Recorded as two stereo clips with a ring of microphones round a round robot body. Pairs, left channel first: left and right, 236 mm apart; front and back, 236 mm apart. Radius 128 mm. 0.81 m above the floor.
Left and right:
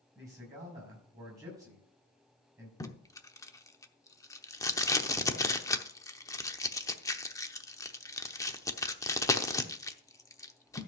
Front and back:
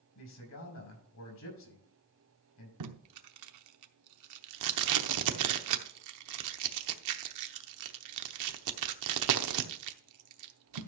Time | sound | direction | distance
0.1 | a man speaking | 10° right | 6 m
2.8 | tape being pulled | 165° left | 0.8 m